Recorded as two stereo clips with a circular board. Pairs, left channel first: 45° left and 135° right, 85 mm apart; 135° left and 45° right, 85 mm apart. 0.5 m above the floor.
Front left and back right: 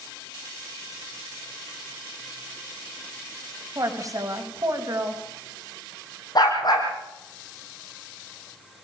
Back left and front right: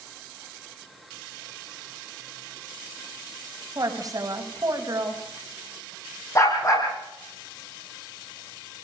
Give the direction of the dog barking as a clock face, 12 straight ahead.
9 o'clock.